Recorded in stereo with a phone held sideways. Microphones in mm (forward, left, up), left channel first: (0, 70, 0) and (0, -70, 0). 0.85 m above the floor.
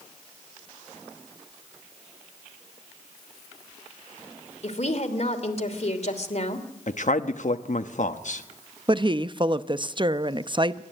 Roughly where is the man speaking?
Left.